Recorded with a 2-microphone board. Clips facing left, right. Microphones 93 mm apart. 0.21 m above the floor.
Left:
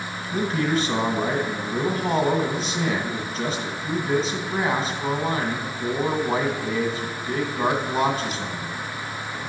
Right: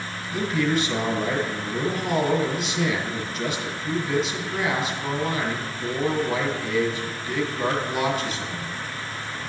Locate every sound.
0.3 s a man speaking: 40° left (ahead or behind), 1.9 m